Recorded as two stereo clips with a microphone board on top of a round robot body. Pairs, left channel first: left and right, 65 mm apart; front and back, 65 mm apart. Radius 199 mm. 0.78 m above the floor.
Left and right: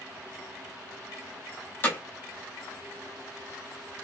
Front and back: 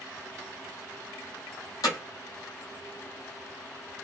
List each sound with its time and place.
1.8 s hammering: 30° left, 0.5 m